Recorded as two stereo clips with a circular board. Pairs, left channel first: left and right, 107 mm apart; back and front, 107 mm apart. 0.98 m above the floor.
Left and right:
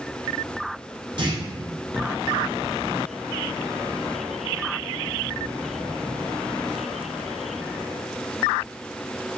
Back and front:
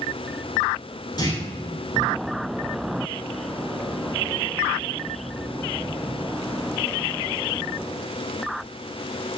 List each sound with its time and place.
1.2 s a clunk: 130° right, 2.5 m